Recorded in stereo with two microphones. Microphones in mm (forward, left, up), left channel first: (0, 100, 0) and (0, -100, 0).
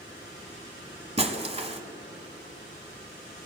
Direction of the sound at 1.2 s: 30° right (ahead or behind).